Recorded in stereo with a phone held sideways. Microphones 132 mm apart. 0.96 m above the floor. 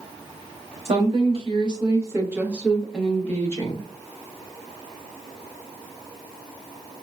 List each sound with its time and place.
0.8 s a woman speaking: 50° right (ahead or behind), 1.3 m; by 3.8 s 25° left (ahead or behind), 1.1 m